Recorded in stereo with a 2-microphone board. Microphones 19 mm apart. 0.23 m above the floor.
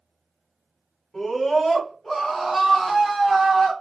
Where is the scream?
20° left (ahead or behind), 1.3 m; by 3.7 s 30° right (ahead or behind), 1.4 m.